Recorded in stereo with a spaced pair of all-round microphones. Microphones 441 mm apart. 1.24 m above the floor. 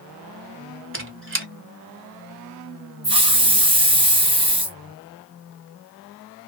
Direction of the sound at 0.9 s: 30° right (ahead or behind).